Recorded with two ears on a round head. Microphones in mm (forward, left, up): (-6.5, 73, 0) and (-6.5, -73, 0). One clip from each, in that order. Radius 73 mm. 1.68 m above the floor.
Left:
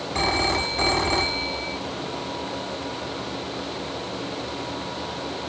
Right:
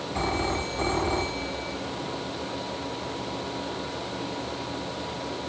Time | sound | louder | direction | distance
0.1 | a phone ringing | left 6 dB | 70° left (ahead or behind) | ?